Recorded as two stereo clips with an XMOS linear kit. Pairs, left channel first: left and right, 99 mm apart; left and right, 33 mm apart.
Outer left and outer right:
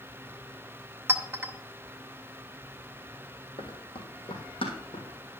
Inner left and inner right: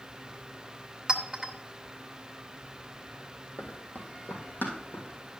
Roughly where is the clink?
Right.